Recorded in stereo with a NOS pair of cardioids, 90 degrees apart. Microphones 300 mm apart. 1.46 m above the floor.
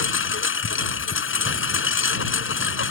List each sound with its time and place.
0.0 s a lawn mower: 40° left